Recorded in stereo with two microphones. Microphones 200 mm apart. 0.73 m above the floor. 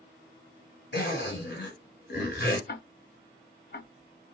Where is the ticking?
55° left (ahead or behind), 0.5 m.